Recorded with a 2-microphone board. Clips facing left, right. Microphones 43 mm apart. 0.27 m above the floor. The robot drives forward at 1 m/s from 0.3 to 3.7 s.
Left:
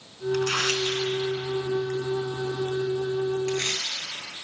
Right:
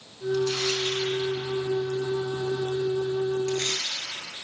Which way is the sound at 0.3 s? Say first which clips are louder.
Left 1 dB; 60° left (ahead or behind).